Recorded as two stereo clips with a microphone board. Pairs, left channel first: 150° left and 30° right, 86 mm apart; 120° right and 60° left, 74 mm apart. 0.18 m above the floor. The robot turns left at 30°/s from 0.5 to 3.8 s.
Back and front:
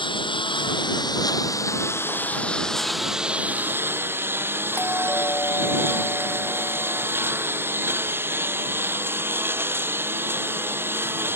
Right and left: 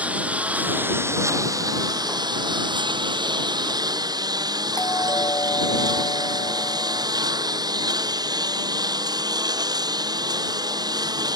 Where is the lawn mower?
135° left; by 11.4 s 35° left.